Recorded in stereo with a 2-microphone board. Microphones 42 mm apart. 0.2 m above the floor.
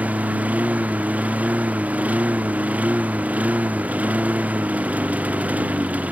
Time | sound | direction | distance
0.0 | a lawn mower | 40° right (ahead or behind) | ?